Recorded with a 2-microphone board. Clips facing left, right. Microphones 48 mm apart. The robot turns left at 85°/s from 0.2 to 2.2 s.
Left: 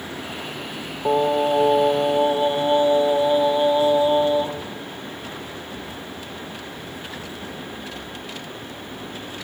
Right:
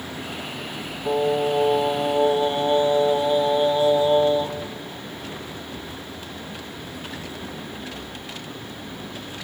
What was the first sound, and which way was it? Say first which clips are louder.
Singing: left 3 dB; 125° left.